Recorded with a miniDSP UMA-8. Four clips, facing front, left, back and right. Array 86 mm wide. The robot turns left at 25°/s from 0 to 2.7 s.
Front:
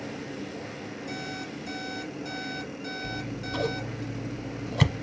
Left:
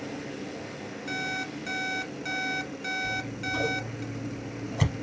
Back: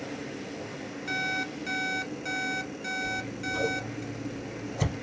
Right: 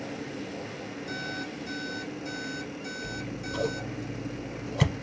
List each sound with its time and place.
1.1 s an alarm clock: 145° left, 0.8 m; by 4.0 s 105° left, 0.8 m
3.0 s scissors: 10° right, 0.8 m